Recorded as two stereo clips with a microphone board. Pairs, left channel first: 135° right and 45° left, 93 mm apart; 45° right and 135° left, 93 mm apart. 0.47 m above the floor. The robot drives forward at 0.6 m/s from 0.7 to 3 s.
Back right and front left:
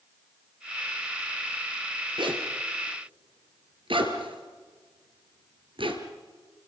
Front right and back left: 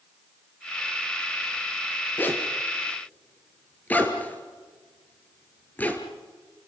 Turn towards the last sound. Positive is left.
turn(degrees=25)